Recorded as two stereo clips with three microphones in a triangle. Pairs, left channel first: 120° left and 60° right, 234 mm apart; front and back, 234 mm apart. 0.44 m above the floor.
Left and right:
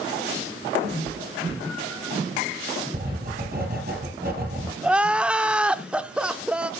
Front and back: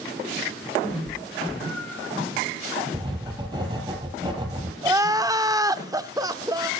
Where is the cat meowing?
70° right, 6.5 m; by 2.1 s 75° right, 6.5 m.